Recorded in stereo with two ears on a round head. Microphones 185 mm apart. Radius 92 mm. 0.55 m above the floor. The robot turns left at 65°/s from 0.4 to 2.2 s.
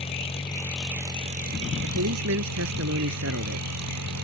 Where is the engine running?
25° left; by 4.2 s 90° right.